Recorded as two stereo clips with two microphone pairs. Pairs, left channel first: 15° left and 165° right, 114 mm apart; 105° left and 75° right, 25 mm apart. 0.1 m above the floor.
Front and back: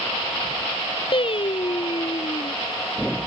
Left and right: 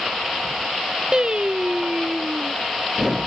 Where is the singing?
20° right.